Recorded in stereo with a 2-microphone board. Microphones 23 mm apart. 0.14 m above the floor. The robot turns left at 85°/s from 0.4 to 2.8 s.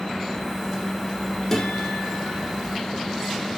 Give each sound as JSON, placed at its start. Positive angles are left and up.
{"t": 1.5, "sound": "a guitar", "azimuth_deg": 160, "distance_m": 5.5}